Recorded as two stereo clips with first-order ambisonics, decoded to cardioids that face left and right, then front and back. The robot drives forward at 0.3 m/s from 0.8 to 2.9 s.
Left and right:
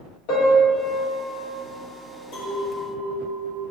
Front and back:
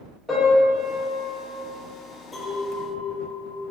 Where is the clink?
90° left, 1.5 m; by 3.6 s 95° left, 1.5 m.